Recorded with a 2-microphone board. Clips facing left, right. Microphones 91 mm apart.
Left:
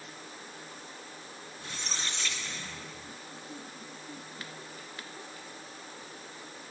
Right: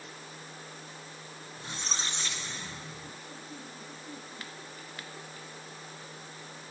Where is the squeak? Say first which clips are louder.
Right 2 dB; 30° right (ahead or behind), 1.6 m.